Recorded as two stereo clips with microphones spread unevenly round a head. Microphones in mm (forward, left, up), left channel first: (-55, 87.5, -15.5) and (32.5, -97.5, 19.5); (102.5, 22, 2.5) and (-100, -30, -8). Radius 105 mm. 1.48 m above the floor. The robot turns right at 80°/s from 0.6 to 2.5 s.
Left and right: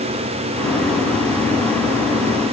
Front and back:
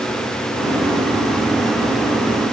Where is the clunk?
I don't hear a clunk.